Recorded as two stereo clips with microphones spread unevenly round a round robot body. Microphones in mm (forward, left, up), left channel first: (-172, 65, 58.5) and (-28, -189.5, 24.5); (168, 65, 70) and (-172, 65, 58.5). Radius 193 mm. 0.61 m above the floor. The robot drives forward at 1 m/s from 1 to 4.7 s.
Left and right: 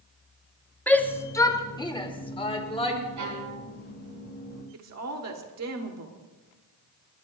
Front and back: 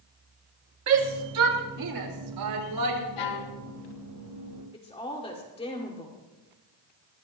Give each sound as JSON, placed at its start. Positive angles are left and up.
{"t": 0.9, "sound": "a shout", "azimuth_deg": -150, "distance_m": 1.6}
{"t": 3.2, "sound": "a violin", "azimuth_deg": -15, "distance_m": 2.5}
{"t": 4.7, "sound": "a woman speaking", "azimuth_deg": -75, "distance_m": 2.0}